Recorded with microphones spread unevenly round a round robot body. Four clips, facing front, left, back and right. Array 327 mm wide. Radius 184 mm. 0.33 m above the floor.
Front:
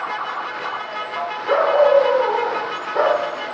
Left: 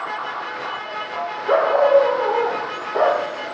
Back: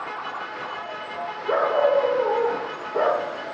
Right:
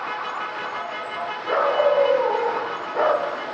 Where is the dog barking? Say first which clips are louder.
Left 4 dB, front 5 dB; 140° left, 4 m.